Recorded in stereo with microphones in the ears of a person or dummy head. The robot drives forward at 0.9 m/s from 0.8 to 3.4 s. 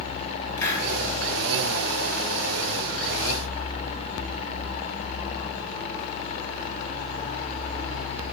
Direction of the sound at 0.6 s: 25° left (ahead or behind).